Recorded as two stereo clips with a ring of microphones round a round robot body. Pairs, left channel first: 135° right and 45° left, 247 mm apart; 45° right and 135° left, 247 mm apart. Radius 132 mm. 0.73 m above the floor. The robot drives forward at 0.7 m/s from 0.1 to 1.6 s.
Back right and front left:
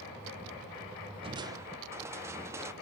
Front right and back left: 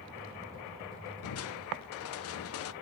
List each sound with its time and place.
1.2 s crushing: 25° right, 0.9 m; by 2.7 s 35° right, 0.7 m